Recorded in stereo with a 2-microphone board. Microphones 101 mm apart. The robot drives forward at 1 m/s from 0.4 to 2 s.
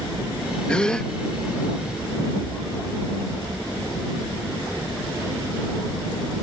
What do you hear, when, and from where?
0.7 s a gasp: 10° left (ahead or behind)